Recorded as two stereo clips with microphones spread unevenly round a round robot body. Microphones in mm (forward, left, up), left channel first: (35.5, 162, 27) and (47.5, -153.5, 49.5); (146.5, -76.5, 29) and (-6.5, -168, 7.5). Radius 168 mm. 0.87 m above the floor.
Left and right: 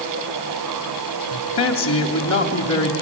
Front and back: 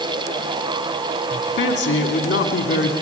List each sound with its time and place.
1.3 s a man speaking: 50° left, 2 m